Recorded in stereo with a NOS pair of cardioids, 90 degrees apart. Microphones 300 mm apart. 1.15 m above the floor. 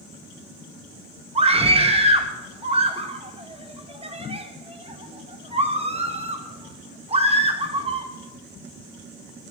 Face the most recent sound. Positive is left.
turn(degrees=-20)